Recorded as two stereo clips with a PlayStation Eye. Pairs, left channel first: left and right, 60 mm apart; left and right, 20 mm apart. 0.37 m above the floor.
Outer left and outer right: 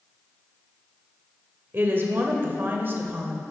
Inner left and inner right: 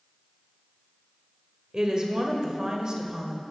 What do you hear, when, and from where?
1.7 s a woman speaking: 40° right (ahead or behind), 1.0 m